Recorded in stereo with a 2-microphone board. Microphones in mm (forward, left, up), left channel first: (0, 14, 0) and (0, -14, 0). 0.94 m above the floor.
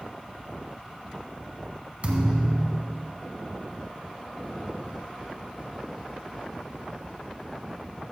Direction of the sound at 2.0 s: 45° right (ahead or behind).